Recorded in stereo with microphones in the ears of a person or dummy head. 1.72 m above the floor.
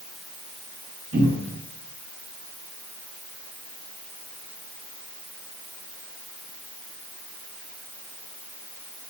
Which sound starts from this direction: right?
A cupboard door, at 1.1 s.